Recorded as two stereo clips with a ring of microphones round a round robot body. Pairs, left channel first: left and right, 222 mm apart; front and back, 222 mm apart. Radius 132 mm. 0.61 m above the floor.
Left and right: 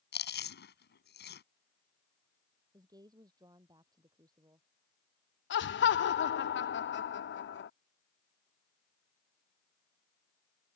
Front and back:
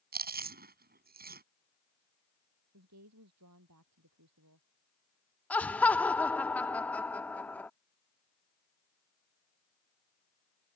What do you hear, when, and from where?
0.1 s chewing: 135° left
2.7 s a woman speaking: 165° right
5.5 s laughter: 85° left